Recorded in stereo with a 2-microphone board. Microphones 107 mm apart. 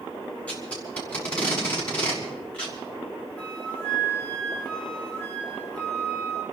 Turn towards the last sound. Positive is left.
turn(degrees=10)  # may be behind; listen again after turning